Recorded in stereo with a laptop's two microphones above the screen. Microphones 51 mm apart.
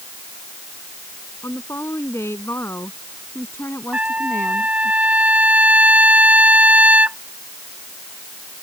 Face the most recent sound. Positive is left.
turn(degrees=-25)  # may be behind; listen again after turning